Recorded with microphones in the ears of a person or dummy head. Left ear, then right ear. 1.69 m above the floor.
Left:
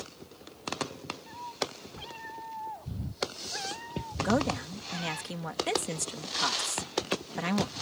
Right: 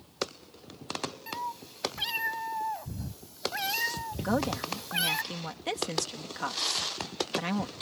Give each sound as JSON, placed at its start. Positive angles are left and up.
{"t": 1.3, "sound": "a cat meowing", "side_deg": -70}
{"t": 4.2, "sound": "a woman speaking", "side_deg": 0}